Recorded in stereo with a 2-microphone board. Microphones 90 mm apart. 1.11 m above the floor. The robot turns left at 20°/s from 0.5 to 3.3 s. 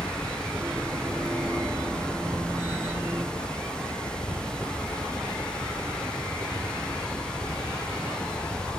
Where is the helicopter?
160° right; by 8.8 s 145° left.